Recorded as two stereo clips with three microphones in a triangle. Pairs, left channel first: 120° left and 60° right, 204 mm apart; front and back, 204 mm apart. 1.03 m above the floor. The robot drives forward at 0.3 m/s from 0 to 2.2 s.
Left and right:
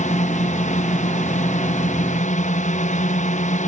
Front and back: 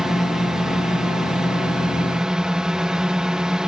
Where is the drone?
95° left.